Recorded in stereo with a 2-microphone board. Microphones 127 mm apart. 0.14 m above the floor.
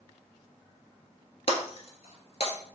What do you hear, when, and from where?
1.5 s breaking glass: 55° left (ahead or behind), 1.2 m